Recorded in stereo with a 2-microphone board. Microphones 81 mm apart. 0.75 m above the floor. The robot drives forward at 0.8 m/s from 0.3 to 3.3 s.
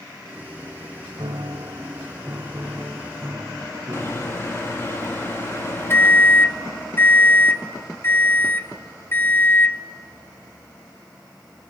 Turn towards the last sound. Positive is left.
turn(degrees=35)  # may be behind; listen again after turning